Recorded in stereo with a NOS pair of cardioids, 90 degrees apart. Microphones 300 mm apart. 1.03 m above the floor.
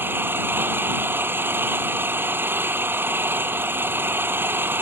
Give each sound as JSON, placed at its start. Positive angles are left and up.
{"t": 0.0, "sound": "an engine running", "azimuth_deg": -5}